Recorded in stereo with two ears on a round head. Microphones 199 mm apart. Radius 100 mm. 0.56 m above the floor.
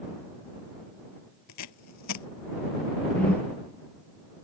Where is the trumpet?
I don't hear a trumpet.